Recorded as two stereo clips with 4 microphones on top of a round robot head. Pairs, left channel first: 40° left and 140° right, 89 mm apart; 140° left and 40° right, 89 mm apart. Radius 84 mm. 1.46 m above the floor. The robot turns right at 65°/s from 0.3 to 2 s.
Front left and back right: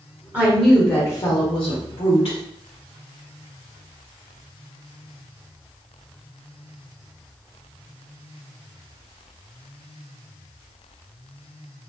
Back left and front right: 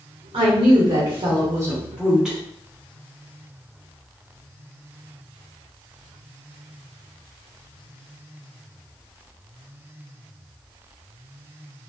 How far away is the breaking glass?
I don't hear breaking glass.